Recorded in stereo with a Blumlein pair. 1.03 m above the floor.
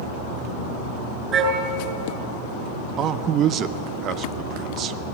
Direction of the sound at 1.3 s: 30° right.